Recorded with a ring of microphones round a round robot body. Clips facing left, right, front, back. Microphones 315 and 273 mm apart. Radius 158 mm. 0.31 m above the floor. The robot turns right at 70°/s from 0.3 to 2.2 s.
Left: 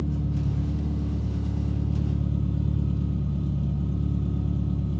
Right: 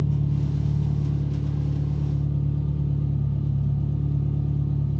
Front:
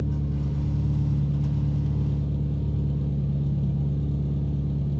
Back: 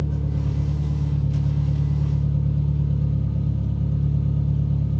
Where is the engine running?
85° right, 2 m; by 5.0 s 45° left, 2 m.